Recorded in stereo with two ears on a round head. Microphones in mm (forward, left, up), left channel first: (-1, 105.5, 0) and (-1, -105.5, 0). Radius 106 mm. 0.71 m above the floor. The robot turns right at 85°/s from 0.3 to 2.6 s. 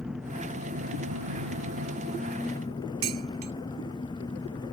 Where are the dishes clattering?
65° right (ahead or behind).